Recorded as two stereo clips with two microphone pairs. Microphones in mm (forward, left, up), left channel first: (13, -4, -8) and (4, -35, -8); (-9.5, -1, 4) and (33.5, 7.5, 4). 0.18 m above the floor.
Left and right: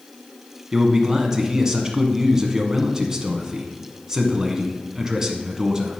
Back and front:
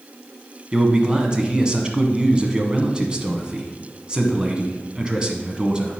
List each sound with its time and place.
0.7 s a man speaking: 45° right, 1.3 m